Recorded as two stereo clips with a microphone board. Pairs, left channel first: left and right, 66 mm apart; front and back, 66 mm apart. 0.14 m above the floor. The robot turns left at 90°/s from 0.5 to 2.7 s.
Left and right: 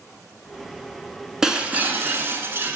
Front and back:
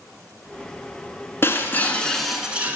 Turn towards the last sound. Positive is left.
turn(degrees=-130)